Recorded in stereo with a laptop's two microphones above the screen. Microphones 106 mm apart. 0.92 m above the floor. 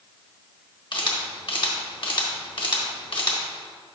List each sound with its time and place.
0.9 s a camera shutter: 55° left (ahead or behind), 1.2 m